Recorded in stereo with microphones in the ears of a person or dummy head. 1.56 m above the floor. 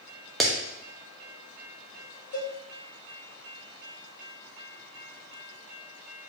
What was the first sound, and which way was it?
A clap, centre (ahead or behind).